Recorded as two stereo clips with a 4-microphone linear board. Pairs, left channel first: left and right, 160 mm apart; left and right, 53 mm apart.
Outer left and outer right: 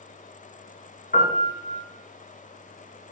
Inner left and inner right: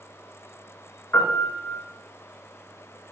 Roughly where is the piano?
Left.